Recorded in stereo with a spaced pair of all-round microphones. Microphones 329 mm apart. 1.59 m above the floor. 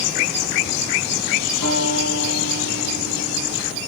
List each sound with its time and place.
1.6 s a guitar: 80° left, 7 m